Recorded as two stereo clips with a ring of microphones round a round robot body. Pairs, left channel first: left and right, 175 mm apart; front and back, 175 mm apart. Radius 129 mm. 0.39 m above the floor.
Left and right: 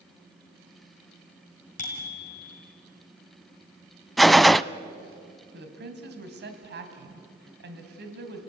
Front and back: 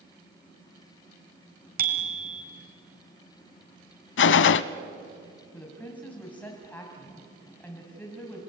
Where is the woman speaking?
85° right, 3 m.